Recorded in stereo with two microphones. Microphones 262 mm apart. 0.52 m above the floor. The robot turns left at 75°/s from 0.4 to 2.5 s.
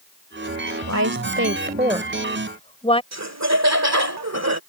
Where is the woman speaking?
65° right (ahead or behind); by 3.0 s 20° left (ahead or behind).